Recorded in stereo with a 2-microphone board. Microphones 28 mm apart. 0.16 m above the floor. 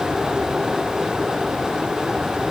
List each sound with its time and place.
Only background noise.